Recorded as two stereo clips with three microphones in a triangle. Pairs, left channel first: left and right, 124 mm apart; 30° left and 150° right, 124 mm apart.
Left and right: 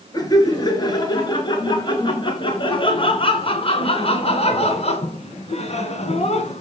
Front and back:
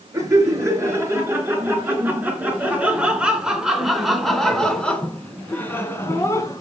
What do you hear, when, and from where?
0.1 s laughter: 150° left, 5 m; by 6.6 s 90° left, 3 m